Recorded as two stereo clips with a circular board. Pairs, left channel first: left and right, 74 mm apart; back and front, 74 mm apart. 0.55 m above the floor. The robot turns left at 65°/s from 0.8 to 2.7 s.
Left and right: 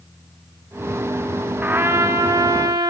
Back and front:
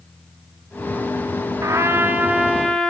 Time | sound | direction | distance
1.6 | a trumpet | 30° right | 0.7 m